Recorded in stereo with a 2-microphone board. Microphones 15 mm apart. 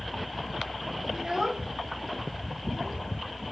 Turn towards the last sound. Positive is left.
turn(degrees=-25)  # may be behind; listen again after turning